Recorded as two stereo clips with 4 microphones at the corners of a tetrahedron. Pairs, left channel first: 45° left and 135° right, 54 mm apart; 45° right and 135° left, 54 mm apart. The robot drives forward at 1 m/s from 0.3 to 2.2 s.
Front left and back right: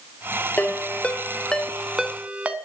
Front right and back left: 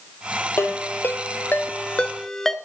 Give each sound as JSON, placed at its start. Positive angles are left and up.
{"t": 0.6, "sound": "a ringtone", "azimuth_deg": -10, "distance_m": 1.7}